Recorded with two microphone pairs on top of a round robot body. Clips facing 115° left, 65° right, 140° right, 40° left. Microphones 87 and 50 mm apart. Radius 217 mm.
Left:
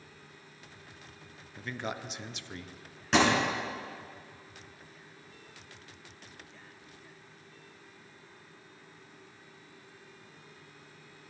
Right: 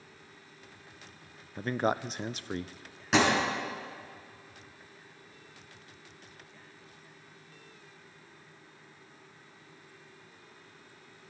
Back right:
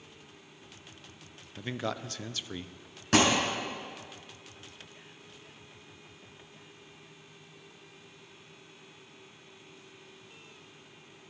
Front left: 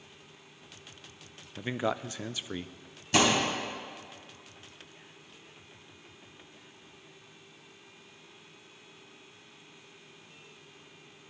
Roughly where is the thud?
Behind right.